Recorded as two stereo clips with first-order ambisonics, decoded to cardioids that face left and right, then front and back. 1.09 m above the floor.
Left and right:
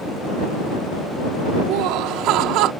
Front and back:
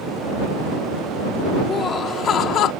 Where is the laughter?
70° right; by 2.7 s 50° right.